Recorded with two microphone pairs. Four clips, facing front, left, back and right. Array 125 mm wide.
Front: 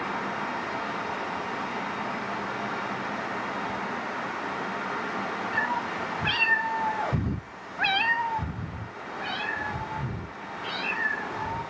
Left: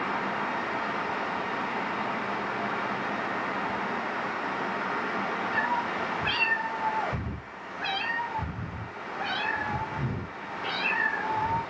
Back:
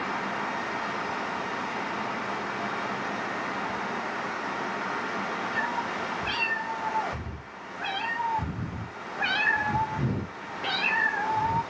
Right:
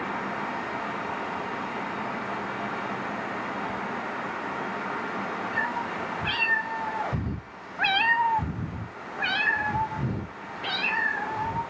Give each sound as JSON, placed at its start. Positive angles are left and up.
{"t": 5.5, "sound": "a cat meowing", "azimuth_deg": 5, "distance_m": 3.0}